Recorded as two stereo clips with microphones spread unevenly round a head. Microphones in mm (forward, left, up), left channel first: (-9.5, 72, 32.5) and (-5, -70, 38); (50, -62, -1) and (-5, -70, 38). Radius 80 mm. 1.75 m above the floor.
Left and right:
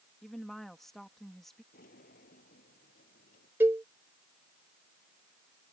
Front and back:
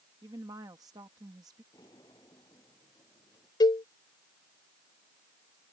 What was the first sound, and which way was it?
A woman speaking, straight behind.